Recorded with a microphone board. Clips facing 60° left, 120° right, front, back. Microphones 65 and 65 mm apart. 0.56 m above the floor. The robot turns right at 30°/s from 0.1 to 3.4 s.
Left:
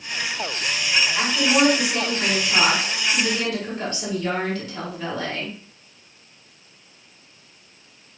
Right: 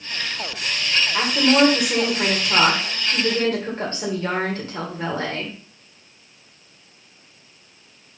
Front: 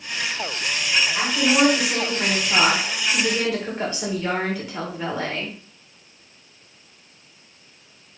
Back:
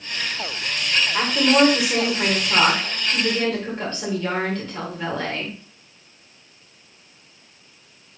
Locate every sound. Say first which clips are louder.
1.1 s a woman speaking: right 4 dB, back 4 dB; 145° right, 2 m; by 5.5 s 80° right, 2 m